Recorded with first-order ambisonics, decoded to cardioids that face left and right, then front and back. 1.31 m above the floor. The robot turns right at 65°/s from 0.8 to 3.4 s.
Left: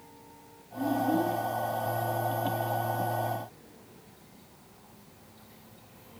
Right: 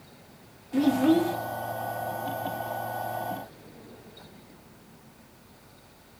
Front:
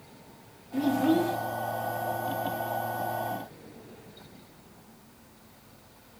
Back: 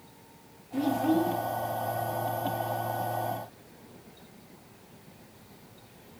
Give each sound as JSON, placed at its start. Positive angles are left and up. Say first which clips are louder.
{"t": 0.7, "sound": "a child speaking", "louder": "right 5 dB, front 1 dB", "azimuth_deg": -90, "distance_m": 0.7}